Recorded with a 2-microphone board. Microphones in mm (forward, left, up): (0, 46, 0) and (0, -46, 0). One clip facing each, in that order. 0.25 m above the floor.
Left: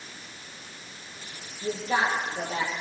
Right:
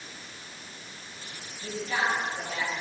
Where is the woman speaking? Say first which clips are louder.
Left 3 dB; 35° left (ahead or behind), 8.5 m.